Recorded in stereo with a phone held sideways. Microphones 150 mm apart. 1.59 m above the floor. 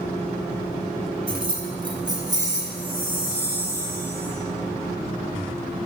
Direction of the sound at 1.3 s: 35° right (ahead or behind).